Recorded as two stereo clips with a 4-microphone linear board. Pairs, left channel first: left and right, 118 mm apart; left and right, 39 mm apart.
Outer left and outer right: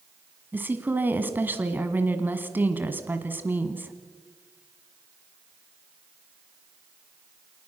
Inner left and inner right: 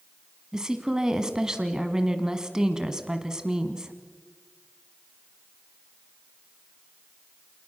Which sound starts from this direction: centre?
A woman speaking, at 0.5 s.